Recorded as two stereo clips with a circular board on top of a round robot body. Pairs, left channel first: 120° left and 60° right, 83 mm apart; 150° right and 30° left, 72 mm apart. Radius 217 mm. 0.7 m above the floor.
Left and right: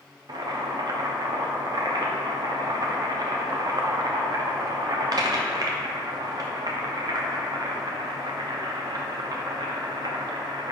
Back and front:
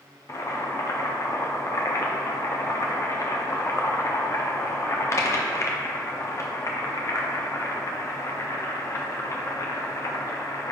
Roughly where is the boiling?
Right.